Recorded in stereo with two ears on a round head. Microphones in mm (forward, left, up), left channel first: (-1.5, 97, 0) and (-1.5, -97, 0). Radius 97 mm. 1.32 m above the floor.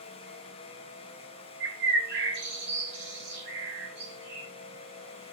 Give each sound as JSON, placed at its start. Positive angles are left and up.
{"t": 1.6, "sound": "a bird", "side_deg": -55, "distance_m": 4.5}